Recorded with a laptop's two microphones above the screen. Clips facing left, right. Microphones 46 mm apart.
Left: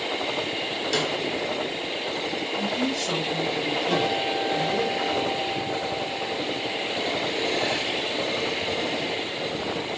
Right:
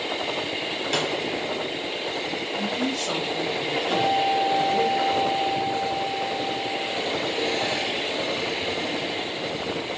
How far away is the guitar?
About 1.5 m.